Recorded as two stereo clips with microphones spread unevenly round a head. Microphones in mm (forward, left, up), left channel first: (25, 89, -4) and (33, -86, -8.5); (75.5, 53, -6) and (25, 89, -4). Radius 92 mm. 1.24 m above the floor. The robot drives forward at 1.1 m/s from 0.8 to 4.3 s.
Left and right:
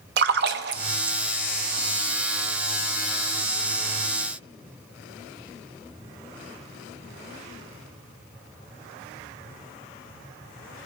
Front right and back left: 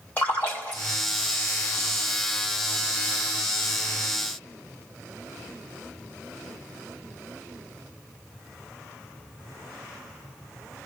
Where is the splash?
105° right, 0.6 m; by 1.2 s 140° right, 0.8 m.